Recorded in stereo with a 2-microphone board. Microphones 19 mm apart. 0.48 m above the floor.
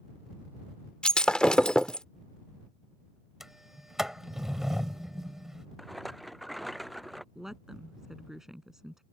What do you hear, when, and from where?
1.0 s breaking glass: 50° left (ahead or behind)
3.4 s a sliding door: 20° right (ahead or behind)
5.8 s a rattle: 5° left (ahead or behind)
7.3 s a woman speaking: 20° right (ahead or behind)